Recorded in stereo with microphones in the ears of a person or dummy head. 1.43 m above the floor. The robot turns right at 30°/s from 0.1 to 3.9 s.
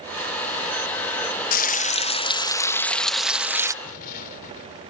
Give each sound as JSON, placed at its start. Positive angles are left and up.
{"t": 1.5, "sound": "frying", "azimuth_deg": 125}
{"t": 3.8, "sound": "an explosion", "side_deg": 50}